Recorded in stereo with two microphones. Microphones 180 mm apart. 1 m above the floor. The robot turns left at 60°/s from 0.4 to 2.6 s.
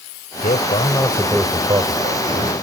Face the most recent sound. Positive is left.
turn(degrees=-80)